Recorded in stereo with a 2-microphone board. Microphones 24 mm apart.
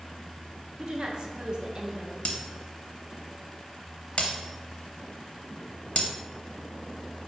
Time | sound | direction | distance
0.8 | a woman speaking | 35° right (ahead or behind) | 0.8 m
2.2 | breaking glass | 55° left (ahead or behind) | 0.7 m